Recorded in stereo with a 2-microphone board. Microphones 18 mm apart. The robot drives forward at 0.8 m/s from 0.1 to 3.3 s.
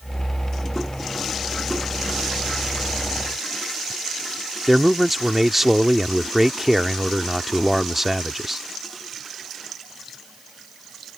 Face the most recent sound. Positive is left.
turn(degrees=-10)  # may be behind; listen again after turning